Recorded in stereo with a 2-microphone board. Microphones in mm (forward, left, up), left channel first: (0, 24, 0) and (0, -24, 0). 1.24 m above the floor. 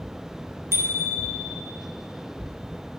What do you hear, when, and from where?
0.7 s a bicycle bell: 65° right (ahead or behind), 2.5 m